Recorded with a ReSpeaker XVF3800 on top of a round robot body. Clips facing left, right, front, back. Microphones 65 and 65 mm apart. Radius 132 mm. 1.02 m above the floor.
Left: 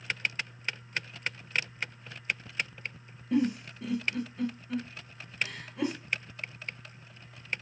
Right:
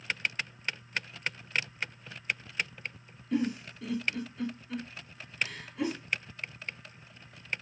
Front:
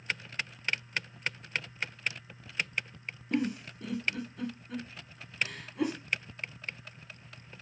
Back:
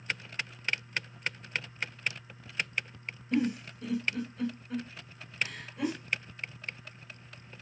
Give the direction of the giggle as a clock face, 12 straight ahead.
11 o'clock.